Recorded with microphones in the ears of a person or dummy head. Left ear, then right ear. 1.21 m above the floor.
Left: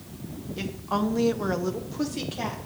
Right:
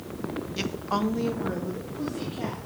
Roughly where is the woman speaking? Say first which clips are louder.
Even; right.